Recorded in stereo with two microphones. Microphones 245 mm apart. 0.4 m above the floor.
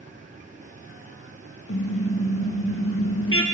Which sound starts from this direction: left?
A car horn, at 1.7 s.